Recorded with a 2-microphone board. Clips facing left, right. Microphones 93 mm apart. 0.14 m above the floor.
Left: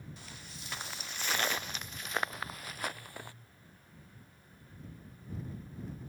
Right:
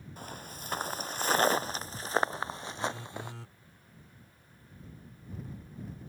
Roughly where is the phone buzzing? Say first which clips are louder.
Right 6 dB; right.